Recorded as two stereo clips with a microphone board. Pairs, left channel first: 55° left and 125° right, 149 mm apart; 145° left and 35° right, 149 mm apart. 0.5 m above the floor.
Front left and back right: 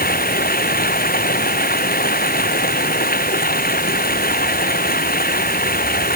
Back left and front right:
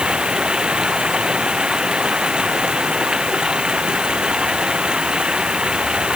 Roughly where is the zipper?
I don't hear a zipper.